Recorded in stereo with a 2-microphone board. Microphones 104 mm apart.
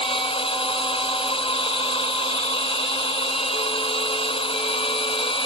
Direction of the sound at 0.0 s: 65° left (ahead or behind).